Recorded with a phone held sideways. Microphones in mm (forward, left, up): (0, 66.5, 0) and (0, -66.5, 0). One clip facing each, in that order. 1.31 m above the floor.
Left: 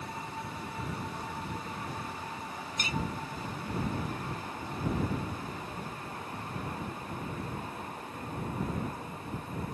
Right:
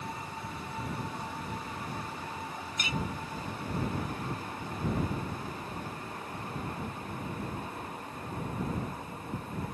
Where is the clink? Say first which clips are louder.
Even; 40° left (ahead or behind).